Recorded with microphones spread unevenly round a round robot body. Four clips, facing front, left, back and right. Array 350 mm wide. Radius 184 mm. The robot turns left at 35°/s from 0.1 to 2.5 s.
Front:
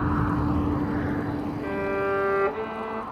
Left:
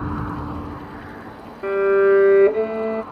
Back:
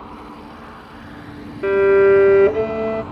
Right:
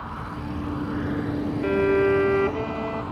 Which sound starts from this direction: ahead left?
A vehicle, at 0.0 s.